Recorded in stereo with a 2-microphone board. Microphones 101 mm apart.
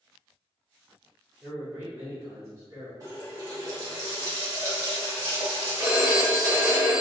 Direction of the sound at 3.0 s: 35° right (ahead or behind).